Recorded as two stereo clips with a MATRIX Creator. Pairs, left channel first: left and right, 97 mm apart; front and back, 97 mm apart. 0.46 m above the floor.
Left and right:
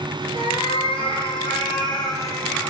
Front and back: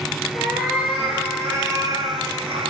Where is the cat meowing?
100° left, 1.7 m; by 2.7 s 165° left, 0.8 m.